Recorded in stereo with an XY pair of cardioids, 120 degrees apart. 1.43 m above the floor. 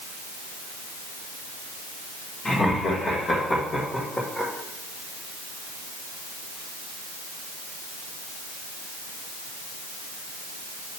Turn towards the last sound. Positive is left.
turn(degrees=10)